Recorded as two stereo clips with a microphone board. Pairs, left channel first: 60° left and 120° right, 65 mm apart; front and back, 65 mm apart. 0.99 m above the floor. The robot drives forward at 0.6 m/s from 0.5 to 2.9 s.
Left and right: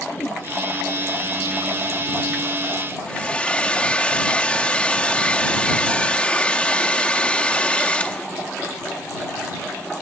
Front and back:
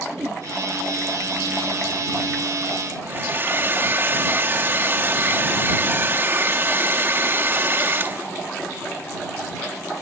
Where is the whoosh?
115° left.